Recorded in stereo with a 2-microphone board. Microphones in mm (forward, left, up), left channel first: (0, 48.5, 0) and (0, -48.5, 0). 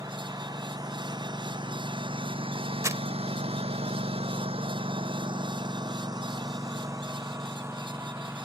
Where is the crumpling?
30° right (ahead or behind).